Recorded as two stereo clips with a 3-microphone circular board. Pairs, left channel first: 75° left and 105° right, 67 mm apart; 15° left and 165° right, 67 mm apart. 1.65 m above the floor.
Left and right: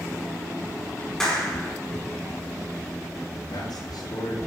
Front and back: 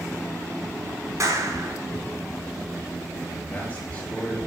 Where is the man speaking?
85° left, 5.5 m.